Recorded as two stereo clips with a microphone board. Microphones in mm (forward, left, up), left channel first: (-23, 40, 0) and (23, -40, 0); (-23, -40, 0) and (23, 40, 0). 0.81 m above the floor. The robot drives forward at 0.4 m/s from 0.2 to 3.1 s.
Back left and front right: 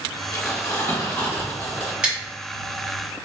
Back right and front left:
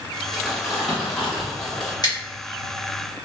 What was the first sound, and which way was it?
Crumpling, 145° left.